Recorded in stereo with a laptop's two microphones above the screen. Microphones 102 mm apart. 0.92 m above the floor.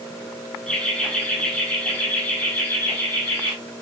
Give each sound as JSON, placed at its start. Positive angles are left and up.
{"t": 0.7, "sound": "laughter", "side_deg": 5, "distance_m": 6.5}